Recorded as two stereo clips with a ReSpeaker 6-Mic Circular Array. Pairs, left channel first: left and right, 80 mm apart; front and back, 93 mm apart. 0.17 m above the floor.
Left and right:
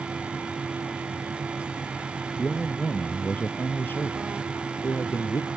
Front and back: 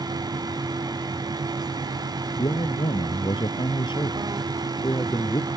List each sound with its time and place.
2.4 s a man speaking: 10° left; by 5.5 s 45° left